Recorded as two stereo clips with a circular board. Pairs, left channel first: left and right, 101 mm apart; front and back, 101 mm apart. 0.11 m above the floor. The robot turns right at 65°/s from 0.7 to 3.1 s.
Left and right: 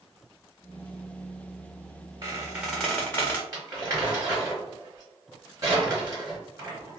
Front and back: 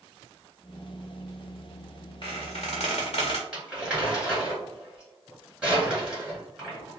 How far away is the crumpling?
About 1.8 m.